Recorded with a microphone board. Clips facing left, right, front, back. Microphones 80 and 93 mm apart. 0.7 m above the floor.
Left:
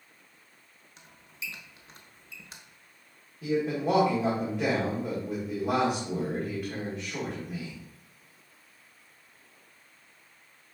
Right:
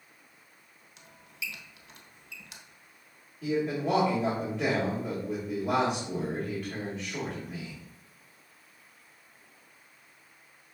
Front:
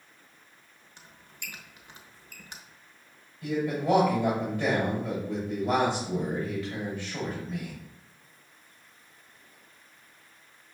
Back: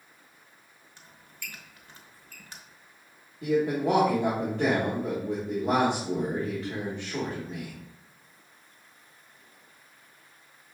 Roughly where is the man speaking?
Behind.